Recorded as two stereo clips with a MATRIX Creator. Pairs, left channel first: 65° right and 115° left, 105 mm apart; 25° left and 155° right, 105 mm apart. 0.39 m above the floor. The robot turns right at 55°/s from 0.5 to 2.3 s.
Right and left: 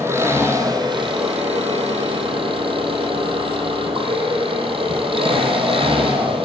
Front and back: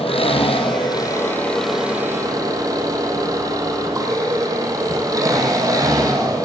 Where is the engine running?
45° left, 4 m; by 6.5 s 145° left, 4 m.